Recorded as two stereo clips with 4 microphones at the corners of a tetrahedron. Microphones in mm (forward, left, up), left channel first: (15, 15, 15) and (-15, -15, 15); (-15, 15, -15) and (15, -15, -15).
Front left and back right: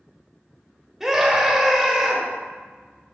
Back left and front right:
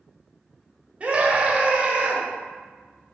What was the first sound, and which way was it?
A scream, 60° right.